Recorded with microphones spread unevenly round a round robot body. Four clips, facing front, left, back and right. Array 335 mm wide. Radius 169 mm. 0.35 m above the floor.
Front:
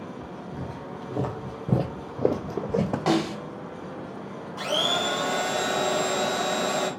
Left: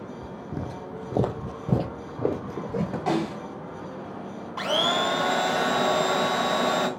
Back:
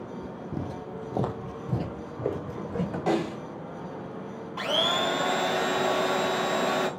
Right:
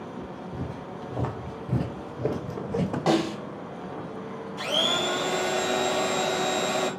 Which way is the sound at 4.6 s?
90° left.